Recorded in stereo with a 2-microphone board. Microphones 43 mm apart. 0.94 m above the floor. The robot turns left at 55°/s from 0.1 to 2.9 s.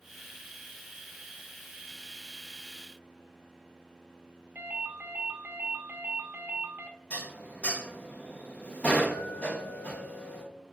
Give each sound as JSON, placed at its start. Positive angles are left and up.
{"t": 4.5, "sound": "a ringtone", "side_deg": -45, "distance_m": 0.6}
{"t": 7.1, "sound": "dishes clattering", "side_deg": 30, "distance_m": 0.6}